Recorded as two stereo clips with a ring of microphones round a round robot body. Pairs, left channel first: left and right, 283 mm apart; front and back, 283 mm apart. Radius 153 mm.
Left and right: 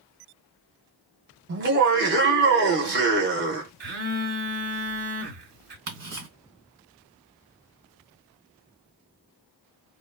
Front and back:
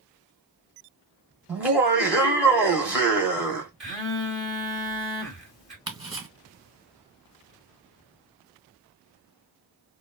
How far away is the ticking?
About 1.9 m.